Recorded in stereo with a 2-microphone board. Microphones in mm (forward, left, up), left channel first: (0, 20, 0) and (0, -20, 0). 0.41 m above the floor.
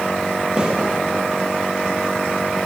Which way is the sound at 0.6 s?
20° right (ahead or behind).